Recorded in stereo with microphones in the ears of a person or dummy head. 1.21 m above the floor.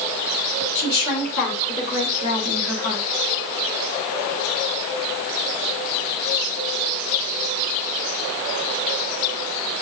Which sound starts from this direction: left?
A woman speaking, at 0.8 s.